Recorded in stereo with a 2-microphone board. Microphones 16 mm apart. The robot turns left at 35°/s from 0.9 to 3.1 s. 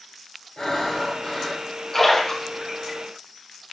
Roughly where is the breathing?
Left.